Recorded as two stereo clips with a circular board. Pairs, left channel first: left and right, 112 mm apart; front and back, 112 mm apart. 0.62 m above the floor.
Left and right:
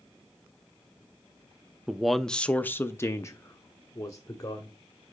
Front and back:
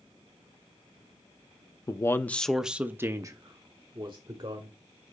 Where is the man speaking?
10° right, 0.6 m; by 4.7 s 145° left, 1.3 m.